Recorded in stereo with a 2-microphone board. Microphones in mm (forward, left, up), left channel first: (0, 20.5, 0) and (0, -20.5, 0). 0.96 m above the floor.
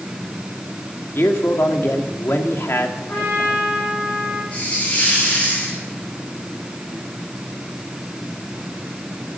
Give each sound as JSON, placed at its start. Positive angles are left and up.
{"t": 1.1, "sound": "a man speaking", "side_deg": 75, "distance_m": 2.5}
{"t": 3.1, "sound": "a trumpet", "side_deg": 55, "distance_m": 9.0}
{"t": 4.5, "sound": "a hiss", "side_deg": 35, "distance_m": 8.0}